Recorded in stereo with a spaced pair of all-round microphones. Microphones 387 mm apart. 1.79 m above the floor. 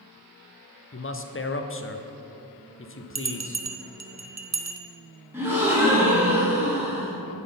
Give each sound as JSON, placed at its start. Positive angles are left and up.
{"t": 0.9, "sound": "a man speaking", "side_deg": 35, "distance_m": 0.5}
{"t": 3.1, "sound": "a bell", "side_deg": -45, "distance_m": 0.5}
{"t": 5.3, "sound": "a gasp", "side_deg": -5, "distance_m": 1.6}